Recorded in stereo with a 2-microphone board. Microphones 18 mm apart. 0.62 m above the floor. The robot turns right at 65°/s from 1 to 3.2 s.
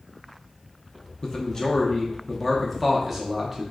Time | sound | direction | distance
1.2 | a man speaking | 80° left | 0.6 m